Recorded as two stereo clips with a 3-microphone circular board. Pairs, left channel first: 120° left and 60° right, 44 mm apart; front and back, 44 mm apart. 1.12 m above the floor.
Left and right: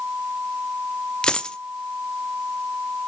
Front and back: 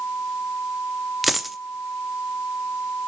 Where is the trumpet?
No trumpet in this recording.